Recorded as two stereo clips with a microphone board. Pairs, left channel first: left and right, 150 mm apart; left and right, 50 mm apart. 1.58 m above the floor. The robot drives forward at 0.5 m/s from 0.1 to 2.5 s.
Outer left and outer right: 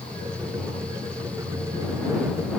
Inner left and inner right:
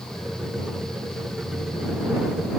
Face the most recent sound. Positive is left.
No sound to turn to.